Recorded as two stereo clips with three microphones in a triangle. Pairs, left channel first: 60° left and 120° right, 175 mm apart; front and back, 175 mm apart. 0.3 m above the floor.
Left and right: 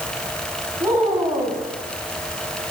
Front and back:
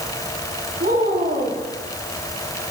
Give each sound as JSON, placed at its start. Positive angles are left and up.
{"t": 0.8, "sound": "a woman speaking", "azimuth_deg": 170, "distance_m": 2.5}